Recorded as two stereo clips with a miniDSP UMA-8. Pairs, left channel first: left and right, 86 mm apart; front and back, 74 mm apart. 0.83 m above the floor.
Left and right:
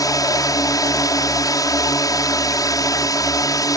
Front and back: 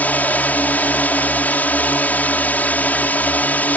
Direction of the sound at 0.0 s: 60° left.